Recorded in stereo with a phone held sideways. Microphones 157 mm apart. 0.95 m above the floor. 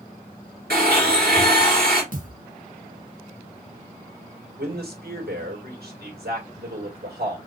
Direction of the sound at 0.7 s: 75° right (ahead or behind).